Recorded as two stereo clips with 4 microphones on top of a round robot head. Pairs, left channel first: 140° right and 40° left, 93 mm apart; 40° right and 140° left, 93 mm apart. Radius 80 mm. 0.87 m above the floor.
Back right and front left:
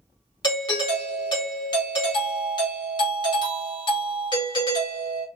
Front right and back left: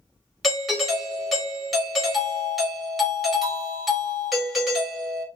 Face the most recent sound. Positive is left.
turn(degrees=-130)